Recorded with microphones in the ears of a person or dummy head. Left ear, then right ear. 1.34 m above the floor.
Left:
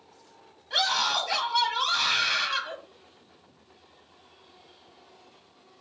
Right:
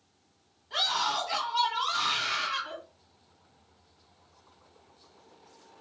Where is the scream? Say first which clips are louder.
Left 3 dB; 35° left (ahead or behind), 1.0 m.